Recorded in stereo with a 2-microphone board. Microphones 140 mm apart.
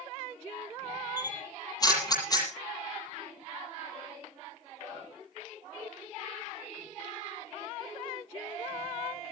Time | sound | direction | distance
1.2 | a camera shutter | 30° left (ahead or behind) | 8.5 m